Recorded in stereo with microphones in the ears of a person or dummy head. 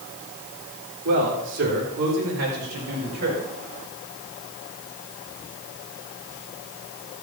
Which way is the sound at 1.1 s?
65° right (ahead or behind).